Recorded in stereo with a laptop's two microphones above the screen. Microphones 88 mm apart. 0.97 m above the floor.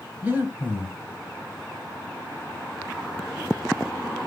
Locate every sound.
0.2 s breathing: 25° right (ahead or behind), 1.6 m